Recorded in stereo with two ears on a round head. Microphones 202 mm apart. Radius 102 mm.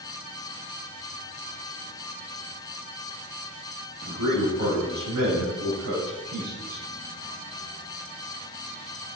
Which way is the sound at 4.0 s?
70° right (ahead or behind).